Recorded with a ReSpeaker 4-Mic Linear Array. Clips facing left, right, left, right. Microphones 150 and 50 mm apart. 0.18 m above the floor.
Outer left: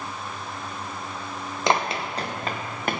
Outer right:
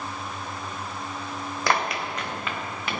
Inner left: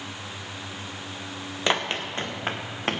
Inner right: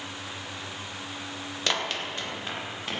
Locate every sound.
1.7 s running footsteps: 20° left (ahead or behind), 2.5 m; by 3.0 s 45° left (ahead or behind), 3.5 m